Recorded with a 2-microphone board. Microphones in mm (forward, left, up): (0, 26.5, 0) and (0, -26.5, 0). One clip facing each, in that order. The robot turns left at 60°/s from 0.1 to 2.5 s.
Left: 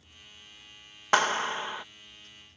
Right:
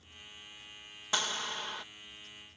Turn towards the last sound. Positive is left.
turn(degrees=-25)